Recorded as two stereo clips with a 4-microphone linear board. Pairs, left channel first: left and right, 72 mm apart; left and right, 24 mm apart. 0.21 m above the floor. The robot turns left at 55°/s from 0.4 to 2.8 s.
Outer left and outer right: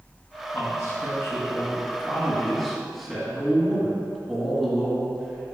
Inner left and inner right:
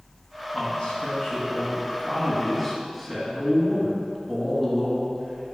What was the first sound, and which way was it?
A man speaking, 120° left.